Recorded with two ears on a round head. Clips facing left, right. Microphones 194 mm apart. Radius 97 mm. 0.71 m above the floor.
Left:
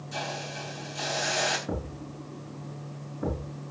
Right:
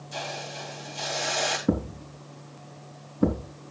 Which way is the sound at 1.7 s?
55° right (ahead or behind).